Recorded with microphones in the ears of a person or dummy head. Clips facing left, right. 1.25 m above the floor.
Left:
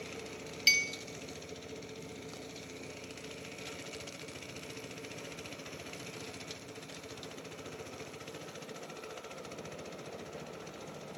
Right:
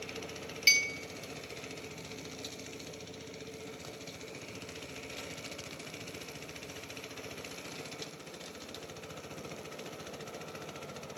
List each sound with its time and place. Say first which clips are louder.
0.7 s a clink: right 1 dB; 5° left (ahead or behind), 0.5 m